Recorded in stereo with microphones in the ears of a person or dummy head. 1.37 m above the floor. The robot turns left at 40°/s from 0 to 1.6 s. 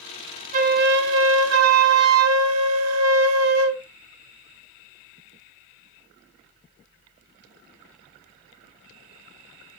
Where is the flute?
50° right, 0.8 m; by 3.8 s 90° right, 0.8 m.